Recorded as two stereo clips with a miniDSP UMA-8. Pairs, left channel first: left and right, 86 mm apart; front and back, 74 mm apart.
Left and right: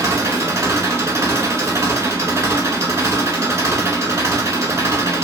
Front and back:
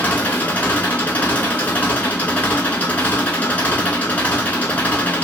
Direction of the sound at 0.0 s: 55° right.